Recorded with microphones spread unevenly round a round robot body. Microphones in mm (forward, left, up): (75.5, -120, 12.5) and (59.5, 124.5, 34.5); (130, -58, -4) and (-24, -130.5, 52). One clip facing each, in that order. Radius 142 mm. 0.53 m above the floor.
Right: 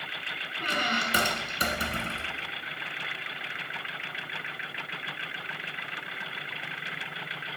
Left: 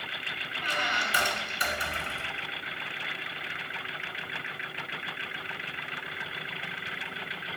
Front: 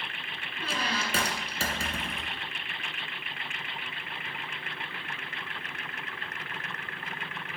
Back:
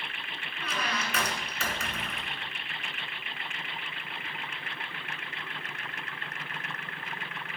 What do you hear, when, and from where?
0.6 s a squeak: 40° right, 1.1 m